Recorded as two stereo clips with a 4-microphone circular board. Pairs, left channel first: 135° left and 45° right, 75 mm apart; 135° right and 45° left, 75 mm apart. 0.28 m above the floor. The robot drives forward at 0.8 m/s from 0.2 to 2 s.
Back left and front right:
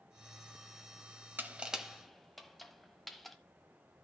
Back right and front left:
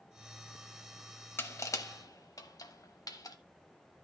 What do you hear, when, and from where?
1.4 s crushing: 95° right, 0.8 m; by 3.4 s 135° right, 0.9 m